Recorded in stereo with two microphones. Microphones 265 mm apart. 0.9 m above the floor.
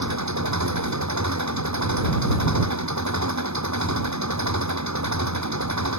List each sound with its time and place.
0.0 s an engine running: 90° right